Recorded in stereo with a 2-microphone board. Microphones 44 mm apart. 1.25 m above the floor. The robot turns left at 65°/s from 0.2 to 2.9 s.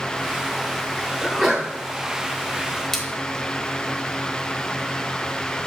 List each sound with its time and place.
1.2 s a sneeze: straight ahead, 3 m; by 1.7 s 30° right, 3 m
2.9 s a splash: 10° left (ahead or behind), 1.1 m